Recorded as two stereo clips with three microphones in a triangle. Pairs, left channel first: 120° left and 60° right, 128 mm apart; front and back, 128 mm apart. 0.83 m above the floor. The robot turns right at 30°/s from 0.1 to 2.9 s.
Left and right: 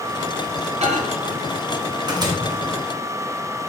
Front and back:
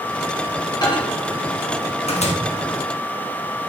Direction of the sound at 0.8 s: 50° right.